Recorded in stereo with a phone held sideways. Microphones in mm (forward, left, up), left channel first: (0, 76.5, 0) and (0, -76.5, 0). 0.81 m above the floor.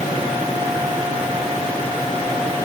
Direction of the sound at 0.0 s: 35° right (ahead or behind).